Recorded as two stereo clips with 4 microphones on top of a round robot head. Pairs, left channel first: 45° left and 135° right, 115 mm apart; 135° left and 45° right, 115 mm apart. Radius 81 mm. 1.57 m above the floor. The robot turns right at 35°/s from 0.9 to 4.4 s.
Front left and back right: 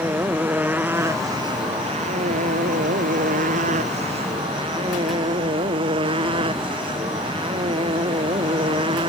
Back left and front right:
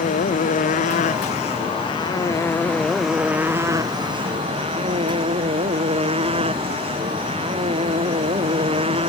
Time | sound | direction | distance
0.0 | a motorcycle | 150° left | ?